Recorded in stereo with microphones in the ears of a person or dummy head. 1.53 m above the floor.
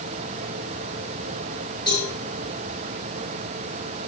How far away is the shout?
I don't hear a shout.